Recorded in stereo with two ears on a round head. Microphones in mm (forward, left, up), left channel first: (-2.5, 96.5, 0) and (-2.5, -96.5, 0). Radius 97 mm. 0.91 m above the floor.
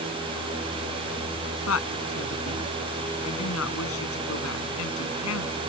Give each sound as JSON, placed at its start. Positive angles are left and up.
{"t": 1.7, "sound": "a woman speaking", "side_deg": 75}